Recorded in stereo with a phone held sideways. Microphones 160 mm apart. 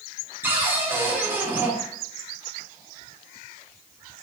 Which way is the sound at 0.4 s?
10° right (ahead or behind).